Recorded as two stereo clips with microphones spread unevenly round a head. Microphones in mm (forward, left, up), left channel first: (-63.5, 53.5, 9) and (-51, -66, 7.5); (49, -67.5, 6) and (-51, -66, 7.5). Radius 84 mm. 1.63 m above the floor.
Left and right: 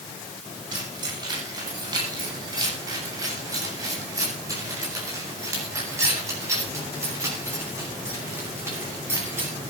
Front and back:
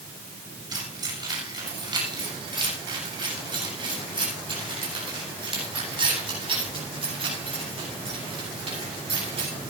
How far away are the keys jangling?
About 7.5 m.